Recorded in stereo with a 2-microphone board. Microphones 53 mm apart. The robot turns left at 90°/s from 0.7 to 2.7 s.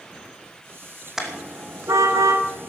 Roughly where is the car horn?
Centre.